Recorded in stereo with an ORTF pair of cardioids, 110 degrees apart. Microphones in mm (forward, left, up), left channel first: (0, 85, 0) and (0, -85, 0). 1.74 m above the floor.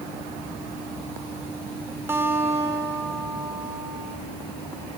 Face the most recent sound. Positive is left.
turn(degrees=-15)